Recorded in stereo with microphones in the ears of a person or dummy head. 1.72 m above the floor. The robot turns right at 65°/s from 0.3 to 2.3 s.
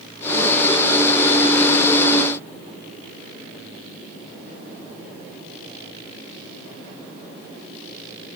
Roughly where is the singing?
No singing in this recording.